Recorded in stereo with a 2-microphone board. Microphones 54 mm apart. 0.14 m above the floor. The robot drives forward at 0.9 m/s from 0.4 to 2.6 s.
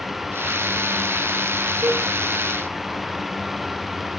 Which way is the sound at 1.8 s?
65° right (ahead or behind).